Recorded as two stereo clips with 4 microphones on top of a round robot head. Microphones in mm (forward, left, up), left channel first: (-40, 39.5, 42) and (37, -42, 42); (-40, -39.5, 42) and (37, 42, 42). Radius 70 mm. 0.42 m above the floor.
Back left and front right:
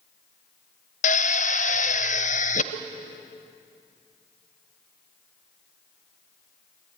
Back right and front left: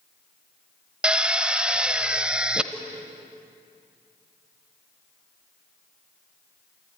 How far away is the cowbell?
About 6 m.